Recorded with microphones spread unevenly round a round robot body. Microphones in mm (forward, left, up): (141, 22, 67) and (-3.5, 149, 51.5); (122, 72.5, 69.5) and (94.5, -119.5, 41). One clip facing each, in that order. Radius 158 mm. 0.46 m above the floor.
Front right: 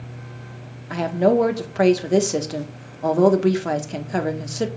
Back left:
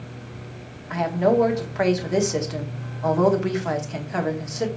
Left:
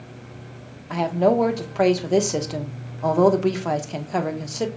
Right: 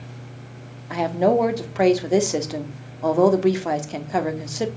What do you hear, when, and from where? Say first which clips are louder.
0.9 s a woman speaking: front right 2 dB, even; 40° right, 1.2 m